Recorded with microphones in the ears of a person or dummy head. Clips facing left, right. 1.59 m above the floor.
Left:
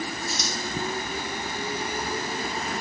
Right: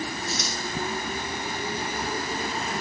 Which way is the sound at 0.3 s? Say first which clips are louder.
Even; 65° left (ahead or behind).